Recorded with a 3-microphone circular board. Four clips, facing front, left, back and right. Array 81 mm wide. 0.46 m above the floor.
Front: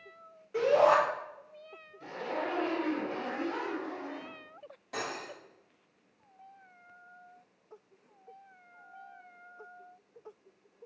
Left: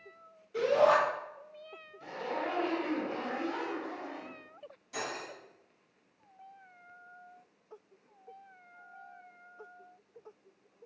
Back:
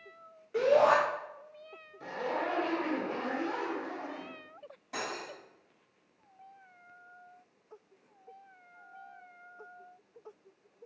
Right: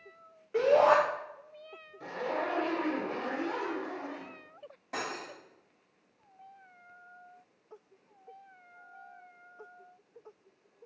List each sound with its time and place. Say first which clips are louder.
0.5 s a shout: right 2 dB, even; 90° right, 2 m
2.0 s a zipper: right 2 dB, back 2 dB; 125° right, 1.3 m
4.9 s cutlery clinking: right 1 dB, even; 85° right, 1.9 m